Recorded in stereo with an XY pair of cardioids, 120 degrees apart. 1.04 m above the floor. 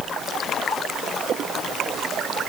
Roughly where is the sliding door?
I don't hear a sliding door.